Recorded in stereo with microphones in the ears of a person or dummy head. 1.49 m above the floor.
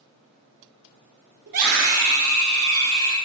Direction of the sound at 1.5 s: 50° right (ahead or behind).